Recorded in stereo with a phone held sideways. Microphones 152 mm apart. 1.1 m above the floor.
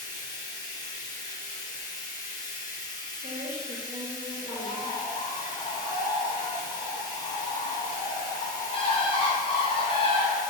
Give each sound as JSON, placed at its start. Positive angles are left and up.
{"t": 0.0, "sound": "running water", "side_deg": 25, "distance_m": 0.7}
{"t": 3.2, "sound": "a woman speaking", "side_deg": -50, "distance_m": 0.6}
{"t": 4.5, "sound": "a bird", "side_deg": 40, "distance_m": 0.6}